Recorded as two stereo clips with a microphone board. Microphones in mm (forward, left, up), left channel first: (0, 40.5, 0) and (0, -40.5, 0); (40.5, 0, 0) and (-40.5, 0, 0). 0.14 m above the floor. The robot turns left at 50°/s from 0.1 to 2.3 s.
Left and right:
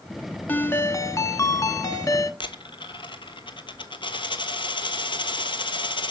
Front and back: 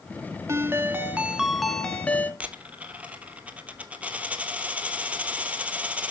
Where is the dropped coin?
105° left, 1.1 m.